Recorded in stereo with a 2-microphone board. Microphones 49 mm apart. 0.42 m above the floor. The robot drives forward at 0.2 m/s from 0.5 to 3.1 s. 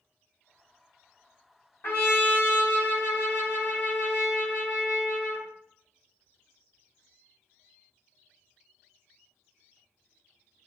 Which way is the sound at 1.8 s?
50° left (ahead or behind).